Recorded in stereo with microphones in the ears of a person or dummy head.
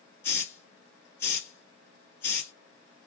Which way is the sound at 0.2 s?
15° left (ahead or behind).